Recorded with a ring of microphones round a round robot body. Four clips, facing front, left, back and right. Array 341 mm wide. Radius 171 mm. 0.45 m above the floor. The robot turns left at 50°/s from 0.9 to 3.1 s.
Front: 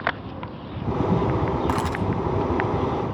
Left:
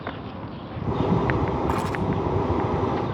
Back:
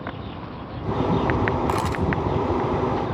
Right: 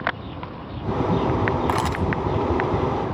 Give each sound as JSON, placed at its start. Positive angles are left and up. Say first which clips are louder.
{"t": 1.7, "sound": "a camera shutter", "louder": "right 2 dB, back 1 dB", "azimuth_deg": -85, "distance_m": 3.5}